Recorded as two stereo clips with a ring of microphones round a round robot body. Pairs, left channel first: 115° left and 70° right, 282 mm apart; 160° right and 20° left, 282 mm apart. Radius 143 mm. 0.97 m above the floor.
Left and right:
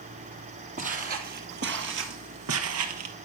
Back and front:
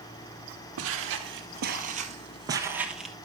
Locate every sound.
0.8 s footsteps: 5° right, 1.6 m; by 3.1 s 70° right, 1.4 m